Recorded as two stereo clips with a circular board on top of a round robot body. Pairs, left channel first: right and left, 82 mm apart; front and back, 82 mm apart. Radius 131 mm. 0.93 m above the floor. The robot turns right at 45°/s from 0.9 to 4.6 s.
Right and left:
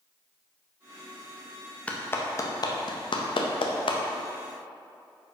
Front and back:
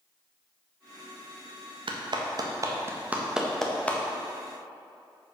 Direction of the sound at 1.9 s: 165° right.